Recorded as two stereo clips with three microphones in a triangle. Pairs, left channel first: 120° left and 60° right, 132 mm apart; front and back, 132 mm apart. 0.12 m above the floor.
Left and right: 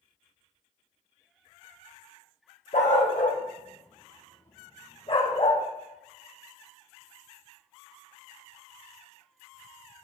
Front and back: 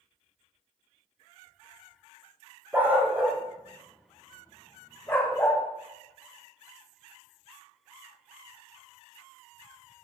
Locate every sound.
2.7 s a dog barking: 105° left, 2 m; by 5.6 s 75° left, 4 m